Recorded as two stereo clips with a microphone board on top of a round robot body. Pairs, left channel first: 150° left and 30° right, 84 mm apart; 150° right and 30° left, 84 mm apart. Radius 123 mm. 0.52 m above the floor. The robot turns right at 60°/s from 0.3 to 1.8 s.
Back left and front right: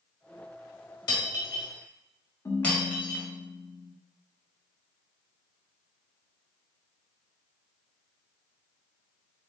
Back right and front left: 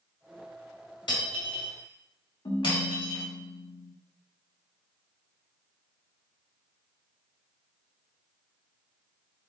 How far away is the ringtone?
About 0.8 m.